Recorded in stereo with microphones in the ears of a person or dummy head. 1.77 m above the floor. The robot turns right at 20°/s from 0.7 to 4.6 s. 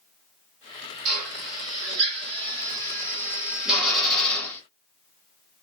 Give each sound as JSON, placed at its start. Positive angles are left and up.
{"t": 1.1, "sound": "a drill", "side_deg": -50, "distance_m": 1.5}